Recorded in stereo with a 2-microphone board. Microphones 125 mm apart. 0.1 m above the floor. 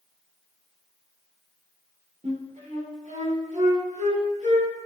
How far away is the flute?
About 5.5 m.